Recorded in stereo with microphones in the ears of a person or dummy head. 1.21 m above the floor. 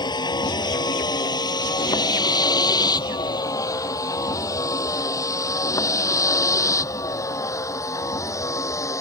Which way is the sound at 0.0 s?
25° left (ahead or behind).